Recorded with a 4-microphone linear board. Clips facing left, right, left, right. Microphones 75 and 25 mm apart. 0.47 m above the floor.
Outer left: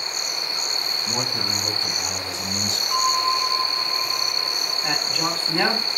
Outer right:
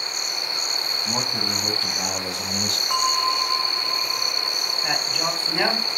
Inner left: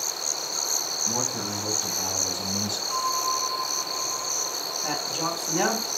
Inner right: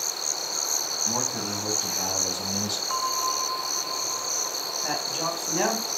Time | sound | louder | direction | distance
1.1 | a man speaking | outer right 1 dB, even | 70° right (ahead or behind) | 4 m
2.9 | a bell | outer left 2 dB, inner left 1 dB | 80° right | 1.4 m
4.8 | a man speaking | even, even | 5° right (ahead or behind) | 3 m